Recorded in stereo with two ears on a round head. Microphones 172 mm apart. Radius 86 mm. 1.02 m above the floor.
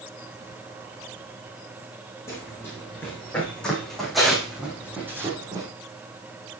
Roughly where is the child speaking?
I don't hear a child speaking.